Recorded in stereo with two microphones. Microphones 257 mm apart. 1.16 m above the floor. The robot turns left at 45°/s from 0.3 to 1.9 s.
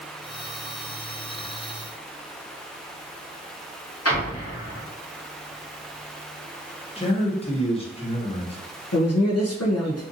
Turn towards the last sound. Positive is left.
turn(degrees=70)  # may be behind; listen again after turning